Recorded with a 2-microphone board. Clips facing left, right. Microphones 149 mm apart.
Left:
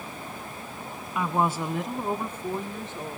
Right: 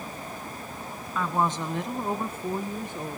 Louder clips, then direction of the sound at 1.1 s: Left 1 dB; 15° left (ahead or behind).